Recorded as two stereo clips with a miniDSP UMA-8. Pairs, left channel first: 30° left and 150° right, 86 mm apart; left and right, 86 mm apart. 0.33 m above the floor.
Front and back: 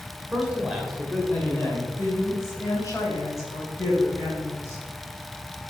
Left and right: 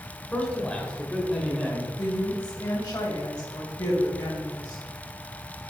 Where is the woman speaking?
75° left, 2 m.